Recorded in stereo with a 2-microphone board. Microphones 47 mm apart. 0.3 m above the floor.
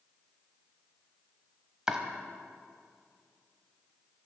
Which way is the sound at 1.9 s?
15° right (ahead or behind).